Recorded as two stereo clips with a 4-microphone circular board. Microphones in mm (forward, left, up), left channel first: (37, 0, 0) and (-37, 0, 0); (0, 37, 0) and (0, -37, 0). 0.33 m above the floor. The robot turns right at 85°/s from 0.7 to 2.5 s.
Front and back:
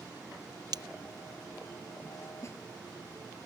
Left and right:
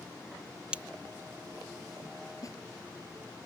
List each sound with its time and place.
0.7 s breaking glass: 165° right; by 0.8 s 155° right
2.4 s a snare drum: 45° left; by 2.6 s 50° left